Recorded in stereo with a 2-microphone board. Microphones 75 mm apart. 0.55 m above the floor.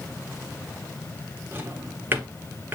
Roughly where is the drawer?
Right.